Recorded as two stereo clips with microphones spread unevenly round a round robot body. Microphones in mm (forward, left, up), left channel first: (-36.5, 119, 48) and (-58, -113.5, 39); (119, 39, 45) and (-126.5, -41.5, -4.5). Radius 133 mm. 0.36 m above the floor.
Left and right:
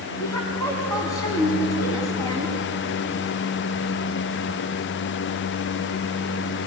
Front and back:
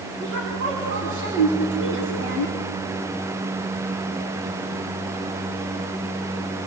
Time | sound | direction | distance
0.2 | a woman speaking | 160° left | 3 m